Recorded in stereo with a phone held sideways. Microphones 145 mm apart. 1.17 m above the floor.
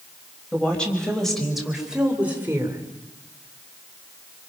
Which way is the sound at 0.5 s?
10° left (ahead or behind).